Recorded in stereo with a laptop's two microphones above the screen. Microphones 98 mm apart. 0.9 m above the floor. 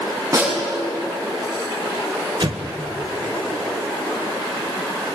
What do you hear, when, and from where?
0.3 s a snare drum: 30° right (ahead or behind), 9 m
2.4 s an explosion: 55° right (ahead or behind), 1.9 m